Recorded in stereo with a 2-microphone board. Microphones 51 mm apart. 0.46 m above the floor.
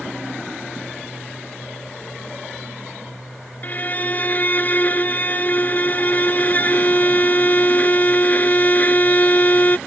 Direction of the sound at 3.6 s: 35° left (ahead or behind).